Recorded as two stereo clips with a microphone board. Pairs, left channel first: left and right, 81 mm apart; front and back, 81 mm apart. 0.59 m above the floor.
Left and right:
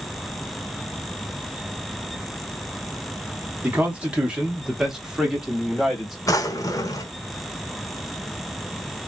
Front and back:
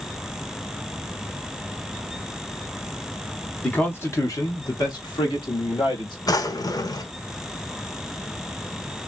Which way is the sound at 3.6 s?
55° right.